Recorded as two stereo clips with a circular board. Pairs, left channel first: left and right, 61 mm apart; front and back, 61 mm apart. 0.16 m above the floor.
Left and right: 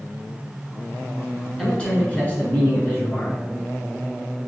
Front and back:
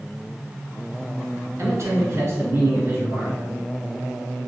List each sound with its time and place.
1.6 s a man speaking: 165° left, 1.7 m; by 3.4 s 130° left, 2.0 m